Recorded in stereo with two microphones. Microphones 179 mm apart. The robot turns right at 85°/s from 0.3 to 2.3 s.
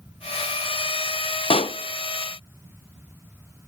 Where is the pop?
30° left (ahead or behind), 0.7 m.